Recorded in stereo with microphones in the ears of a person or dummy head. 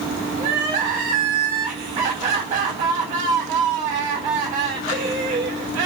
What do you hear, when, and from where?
0.4 s crying: 35° right (ahead or behind), 1.3 m